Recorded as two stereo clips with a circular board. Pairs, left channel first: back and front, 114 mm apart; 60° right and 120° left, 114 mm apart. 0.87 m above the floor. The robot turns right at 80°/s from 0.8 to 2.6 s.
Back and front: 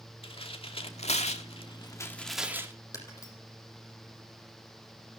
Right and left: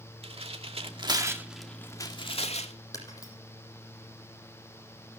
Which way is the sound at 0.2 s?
145° left.